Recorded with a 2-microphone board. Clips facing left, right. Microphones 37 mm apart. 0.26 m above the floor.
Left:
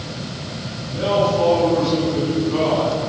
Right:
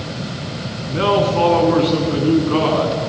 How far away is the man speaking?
About 2.5 m.